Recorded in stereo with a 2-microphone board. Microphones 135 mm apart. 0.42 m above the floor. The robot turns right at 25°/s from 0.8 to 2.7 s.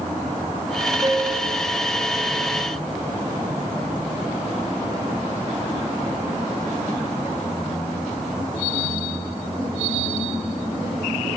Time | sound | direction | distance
1.0 | a piano | 35° right (ahead or behind) | 5.5 m